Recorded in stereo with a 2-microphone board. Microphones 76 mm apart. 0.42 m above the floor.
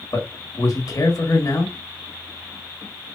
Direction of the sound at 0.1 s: 55° left (ahead or behind).